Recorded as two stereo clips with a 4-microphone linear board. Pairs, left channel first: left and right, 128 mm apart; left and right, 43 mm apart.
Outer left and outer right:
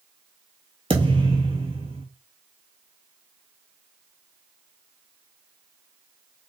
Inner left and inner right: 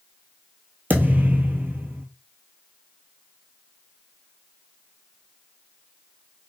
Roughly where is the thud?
Right.